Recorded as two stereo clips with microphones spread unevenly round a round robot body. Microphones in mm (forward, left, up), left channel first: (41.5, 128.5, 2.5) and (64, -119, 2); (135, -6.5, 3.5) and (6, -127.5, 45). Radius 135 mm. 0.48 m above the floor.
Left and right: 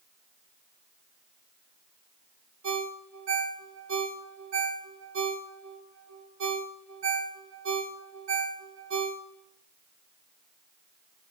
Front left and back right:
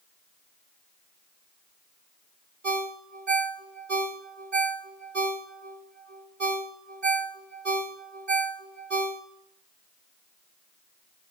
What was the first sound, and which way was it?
A ringtone, 115° right.